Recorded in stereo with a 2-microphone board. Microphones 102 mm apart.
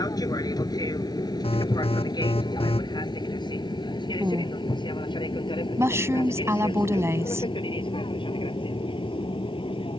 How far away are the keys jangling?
No keys jangling in this recording.